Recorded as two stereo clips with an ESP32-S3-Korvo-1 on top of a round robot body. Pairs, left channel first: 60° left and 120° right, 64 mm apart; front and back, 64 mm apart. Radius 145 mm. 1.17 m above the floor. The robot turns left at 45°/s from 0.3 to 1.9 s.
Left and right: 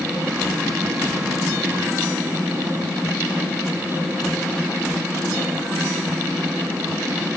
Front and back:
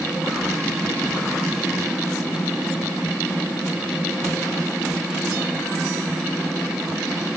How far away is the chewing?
No chewing in this recording.